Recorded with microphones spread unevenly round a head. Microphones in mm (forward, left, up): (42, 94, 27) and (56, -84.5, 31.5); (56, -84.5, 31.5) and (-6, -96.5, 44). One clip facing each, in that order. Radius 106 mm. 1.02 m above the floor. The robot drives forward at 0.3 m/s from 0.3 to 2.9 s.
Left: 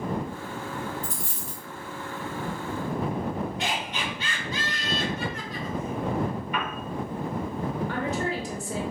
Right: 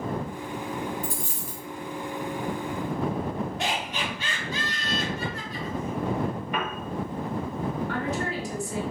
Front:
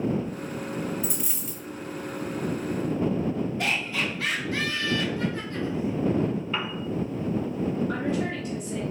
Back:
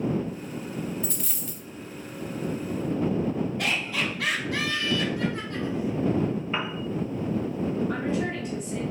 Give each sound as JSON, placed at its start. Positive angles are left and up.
{"t": 1.0, "sound": "a dropped coin", "azimuth_deg": -75, "distance_m": 2.5}
{"t": 3.6, "sound": "laughter", "azimuth_deg": -135, "distance_m": 2.0}
{"t": 6.5, "sound": "a piano", "azimuth_deg": -125, "distance_m": 0.6}
{"t": 7.9, "sound": "a woman speaking", "azimuth_deg": 115, "distance_m": 1.7}